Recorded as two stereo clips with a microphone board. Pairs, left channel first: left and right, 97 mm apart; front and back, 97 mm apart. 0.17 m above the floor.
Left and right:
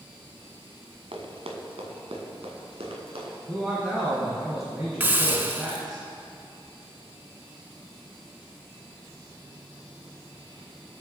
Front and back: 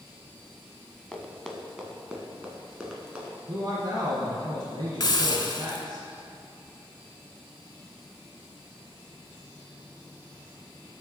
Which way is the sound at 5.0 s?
25° right.